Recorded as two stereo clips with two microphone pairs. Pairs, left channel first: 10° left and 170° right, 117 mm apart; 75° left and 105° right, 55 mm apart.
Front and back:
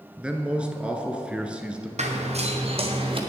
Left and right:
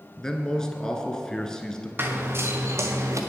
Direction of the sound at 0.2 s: 130° left.